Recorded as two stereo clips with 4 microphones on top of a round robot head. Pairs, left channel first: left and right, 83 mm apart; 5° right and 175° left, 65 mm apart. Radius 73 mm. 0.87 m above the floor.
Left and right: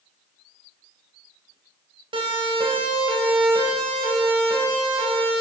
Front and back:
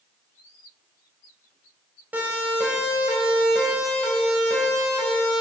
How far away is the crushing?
No crushing in this recording.